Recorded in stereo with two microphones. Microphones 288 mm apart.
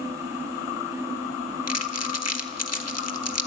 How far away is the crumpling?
About 1.0 m.